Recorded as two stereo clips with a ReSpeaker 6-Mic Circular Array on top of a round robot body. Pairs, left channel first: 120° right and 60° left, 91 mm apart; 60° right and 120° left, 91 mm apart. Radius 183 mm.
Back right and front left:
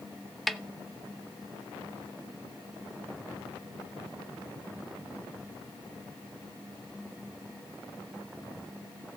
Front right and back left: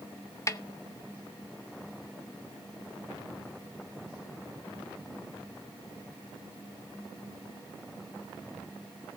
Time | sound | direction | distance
0.5 | a snare drum | 30° right | 1.1 m